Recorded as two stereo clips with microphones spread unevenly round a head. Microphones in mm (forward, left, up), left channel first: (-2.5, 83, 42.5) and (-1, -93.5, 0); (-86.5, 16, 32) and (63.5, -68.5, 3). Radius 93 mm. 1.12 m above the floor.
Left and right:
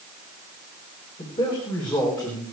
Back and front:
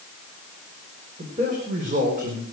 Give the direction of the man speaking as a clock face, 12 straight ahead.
11 o'clock.